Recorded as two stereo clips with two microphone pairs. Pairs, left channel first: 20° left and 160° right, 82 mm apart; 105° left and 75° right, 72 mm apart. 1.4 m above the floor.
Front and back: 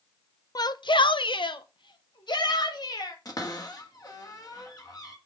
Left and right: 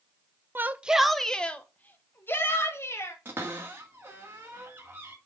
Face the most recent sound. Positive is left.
turn(degrees=-20)